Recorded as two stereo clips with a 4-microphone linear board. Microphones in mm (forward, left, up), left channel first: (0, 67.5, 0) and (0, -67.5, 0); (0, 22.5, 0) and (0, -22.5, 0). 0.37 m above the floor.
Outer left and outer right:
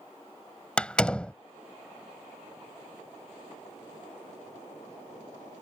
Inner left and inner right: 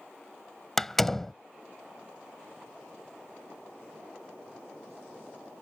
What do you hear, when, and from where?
0.8 s a door slam: 10° left (ahead or behind)